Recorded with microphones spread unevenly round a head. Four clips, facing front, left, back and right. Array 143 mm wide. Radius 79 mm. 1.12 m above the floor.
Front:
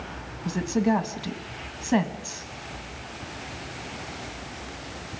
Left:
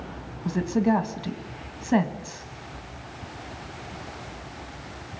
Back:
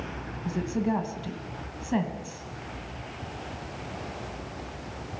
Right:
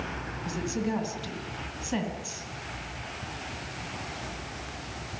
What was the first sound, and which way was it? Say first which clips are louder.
A woman speaking: left 8 dB, front 4 dB; 45° left.